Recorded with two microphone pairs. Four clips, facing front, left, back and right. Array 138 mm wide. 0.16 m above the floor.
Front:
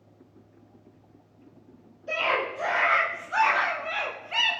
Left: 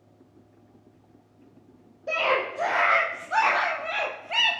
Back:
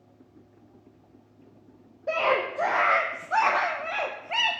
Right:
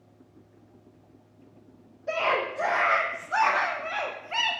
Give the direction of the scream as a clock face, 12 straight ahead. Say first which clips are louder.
Left 1 dB, back 3 dB; 7 o'clock.